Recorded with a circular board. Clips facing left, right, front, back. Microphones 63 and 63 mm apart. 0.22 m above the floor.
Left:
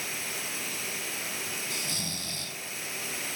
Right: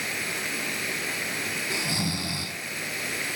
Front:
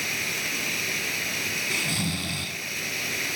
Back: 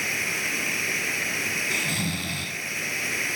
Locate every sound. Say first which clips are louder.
0.0 s running water: right 6 dB, back 2 dB; 120° right, 3 m
1.7 s snoring: right 8 dB, back 1 dB; 95° right, 1.4 m